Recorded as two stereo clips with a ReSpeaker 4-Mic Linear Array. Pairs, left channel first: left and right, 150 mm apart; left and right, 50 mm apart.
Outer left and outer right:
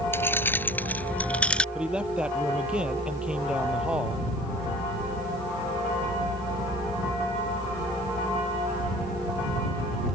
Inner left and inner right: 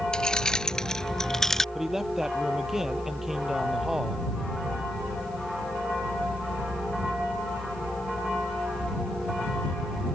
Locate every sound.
0.1 s keys jangling: 15° left (ahead or behind); by 1.6 s 5° left (ahead or behind)
1.8 s a man speaking: 5° right (ahead or behind)